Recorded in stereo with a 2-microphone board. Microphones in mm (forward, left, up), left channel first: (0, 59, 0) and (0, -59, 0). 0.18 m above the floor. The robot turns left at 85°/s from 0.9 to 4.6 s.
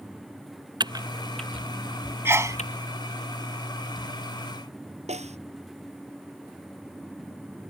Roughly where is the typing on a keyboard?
Right.